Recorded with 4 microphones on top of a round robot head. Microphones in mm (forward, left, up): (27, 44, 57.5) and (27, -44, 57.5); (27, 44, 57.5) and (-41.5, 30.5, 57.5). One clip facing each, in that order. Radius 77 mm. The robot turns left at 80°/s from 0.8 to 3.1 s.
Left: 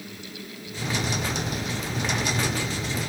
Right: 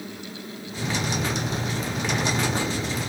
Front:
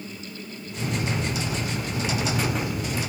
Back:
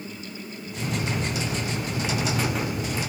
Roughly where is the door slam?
No door slam in this recording.